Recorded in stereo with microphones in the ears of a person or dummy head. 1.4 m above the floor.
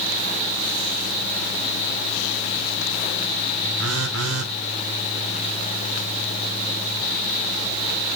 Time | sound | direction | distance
3.8 | a phone buzzing | 80° right | 1.3 m